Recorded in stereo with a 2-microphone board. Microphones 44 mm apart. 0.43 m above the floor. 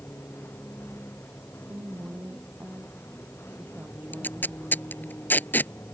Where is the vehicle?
65° left (ahead or behind).